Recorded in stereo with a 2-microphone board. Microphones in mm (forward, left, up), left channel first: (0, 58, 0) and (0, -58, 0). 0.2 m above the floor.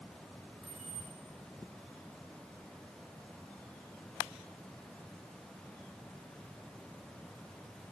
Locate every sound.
0.6 s keys jangling: centre (ahead or behind), 5.5 m